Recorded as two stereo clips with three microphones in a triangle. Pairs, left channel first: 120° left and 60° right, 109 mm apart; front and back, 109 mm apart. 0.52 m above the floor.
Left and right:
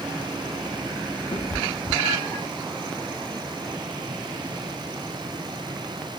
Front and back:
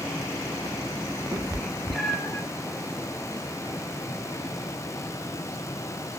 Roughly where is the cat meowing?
Behind left.